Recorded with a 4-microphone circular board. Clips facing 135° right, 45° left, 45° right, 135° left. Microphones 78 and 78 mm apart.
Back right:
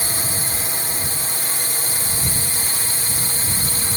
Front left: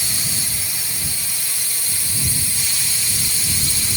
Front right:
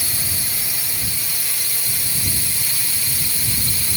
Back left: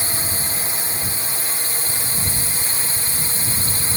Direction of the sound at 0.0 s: 175° right.